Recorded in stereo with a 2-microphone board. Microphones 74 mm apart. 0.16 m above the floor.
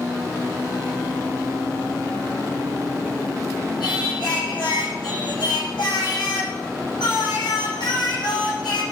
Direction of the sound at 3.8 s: 80° left.